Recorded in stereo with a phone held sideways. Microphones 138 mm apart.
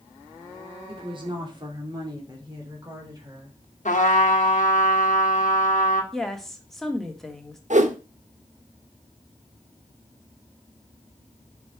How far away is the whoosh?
About 0.7 m.